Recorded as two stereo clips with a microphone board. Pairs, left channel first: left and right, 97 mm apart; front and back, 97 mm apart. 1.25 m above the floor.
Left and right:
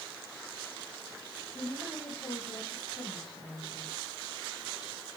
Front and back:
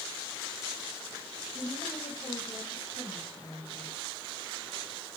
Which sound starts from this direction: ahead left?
A woman speaking, at 1.5 s.